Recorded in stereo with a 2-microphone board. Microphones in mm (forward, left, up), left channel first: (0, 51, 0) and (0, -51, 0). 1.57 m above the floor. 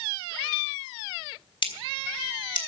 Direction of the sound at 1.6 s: 50° left (ahead or behind).